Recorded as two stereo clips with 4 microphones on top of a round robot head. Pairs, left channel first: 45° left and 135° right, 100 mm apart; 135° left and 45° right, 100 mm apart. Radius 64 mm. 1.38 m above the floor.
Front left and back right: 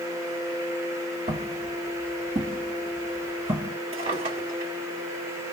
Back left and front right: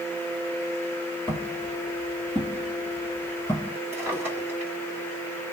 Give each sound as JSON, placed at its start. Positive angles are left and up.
{"t": 1.3, "sound": "footsteps", "azimuth_deg": -125, "distance_m": 2.0}
{"t": 3.9, "sound": "a drawer", "azimuth_deg": -110, "distance_m": 1.7}